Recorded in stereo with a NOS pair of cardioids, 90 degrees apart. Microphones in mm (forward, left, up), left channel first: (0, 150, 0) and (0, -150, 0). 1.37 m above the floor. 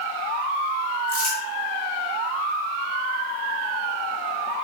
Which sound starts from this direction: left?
Crumpling, at 1.1 s.